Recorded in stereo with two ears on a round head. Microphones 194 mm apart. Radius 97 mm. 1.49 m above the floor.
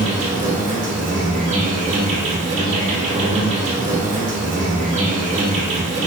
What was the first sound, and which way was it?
An insect, 35° right (ahead or behind).